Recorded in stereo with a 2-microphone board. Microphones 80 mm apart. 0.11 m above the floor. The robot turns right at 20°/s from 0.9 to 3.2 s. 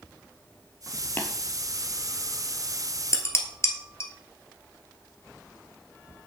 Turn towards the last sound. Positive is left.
turn(degrees=35)  # may be behind; listen again after turning